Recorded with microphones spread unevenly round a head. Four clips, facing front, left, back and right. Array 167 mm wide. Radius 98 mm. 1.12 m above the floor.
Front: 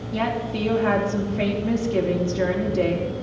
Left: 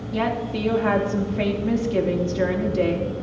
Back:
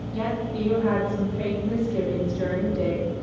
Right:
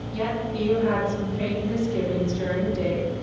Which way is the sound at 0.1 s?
35° left.